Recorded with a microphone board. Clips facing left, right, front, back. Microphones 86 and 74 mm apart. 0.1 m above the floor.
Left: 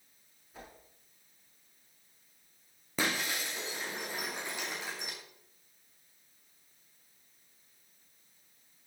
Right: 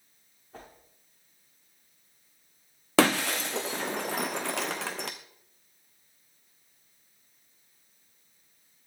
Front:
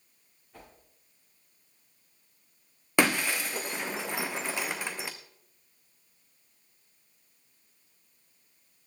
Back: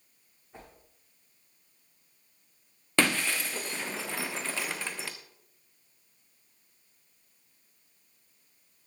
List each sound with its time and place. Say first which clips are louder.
0.5 s a whoosh: right 3 dB, back 2 dB; 115° right, 6.5 m
3.0 s breaking glass: right 10 dB, front 2 dB; 75° right, 1.4 m